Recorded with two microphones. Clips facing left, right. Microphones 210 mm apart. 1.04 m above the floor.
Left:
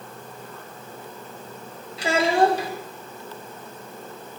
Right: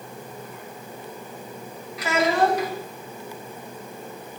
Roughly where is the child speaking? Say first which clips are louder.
Left 2 dB; left.